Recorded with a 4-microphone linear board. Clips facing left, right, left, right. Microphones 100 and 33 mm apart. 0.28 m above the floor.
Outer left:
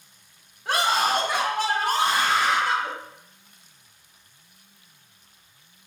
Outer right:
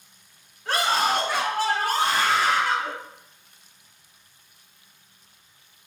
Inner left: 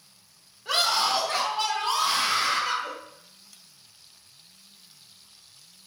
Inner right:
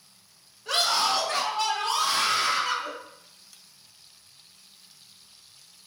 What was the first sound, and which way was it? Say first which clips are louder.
A scream: even, even; 15° left (ahead or behind).